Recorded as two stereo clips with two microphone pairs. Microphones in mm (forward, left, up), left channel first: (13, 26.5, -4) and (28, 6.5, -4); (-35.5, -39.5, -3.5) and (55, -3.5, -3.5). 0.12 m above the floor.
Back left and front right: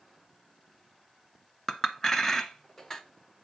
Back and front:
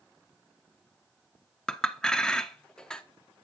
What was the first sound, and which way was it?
A clink, 140° left.